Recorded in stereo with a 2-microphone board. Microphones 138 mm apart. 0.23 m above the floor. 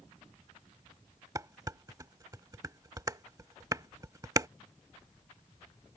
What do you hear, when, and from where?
1.4 s dishes clattering: 25° right (ahead or behind)